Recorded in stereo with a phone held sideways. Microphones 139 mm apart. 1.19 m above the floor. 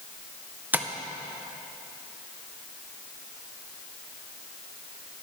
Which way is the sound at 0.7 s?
10° right (ahead or behind).